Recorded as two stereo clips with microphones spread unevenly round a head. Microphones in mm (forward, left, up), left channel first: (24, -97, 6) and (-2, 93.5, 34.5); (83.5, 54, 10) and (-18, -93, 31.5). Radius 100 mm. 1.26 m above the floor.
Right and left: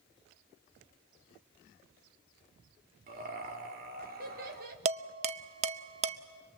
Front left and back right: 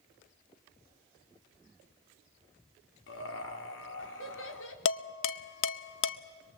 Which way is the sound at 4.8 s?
45° left.